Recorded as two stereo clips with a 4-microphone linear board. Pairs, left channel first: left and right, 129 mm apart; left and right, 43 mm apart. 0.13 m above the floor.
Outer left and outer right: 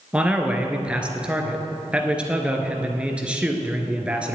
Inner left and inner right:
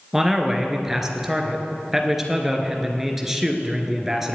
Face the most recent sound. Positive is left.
turn(degrees=-10)  # may be behind; listen again after turning